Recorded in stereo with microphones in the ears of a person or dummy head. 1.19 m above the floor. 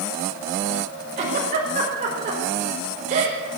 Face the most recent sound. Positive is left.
turn(degrees=-35)  # may be behind; listen again after turning